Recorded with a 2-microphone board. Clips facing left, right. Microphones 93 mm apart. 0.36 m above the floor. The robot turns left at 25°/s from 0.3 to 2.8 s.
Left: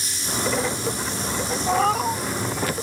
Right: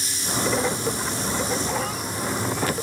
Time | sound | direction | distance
1.7 | a cat meowing | 55° left (ahead or behind) | ?